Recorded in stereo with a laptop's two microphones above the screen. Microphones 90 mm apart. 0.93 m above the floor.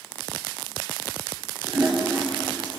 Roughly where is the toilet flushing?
Right.